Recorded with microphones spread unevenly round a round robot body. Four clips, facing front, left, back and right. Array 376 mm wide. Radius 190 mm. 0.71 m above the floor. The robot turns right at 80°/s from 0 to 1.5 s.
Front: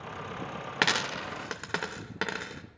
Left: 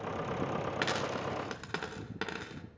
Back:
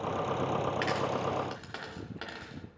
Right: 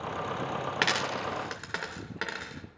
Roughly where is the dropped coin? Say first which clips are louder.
Right 3 dB, back 1 dB; ahead right.